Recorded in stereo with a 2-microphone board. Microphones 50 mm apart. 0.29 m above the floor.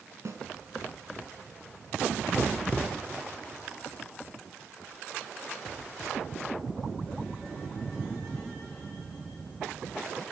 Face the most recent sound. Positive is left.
turn(degrees=-65)  # may be behind; listen again after turning